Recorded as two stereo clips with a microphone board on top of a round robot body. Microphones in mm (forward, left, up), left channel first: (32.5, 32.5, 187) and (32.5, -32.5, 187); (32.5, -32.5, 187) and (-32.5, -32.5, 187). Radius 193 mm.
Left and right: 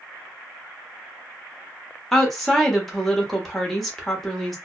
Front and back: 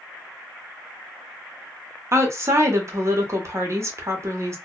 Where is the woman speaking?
175° left, 1.1 m.